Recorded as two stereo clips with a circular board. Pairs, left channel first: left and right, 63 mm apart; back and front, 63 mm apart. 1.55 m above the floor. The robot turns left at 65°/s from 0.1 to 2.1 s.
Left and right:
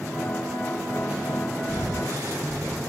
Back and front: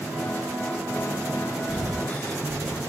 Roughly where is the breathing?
Right.